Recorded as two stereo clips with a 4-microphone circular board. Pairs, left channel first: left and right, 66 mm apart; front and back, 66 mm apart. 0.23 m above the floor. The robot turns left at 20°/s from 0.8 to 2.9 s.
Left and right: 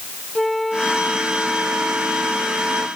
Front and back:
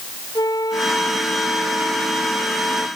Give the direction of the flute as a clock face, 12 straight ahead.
12 o'clock.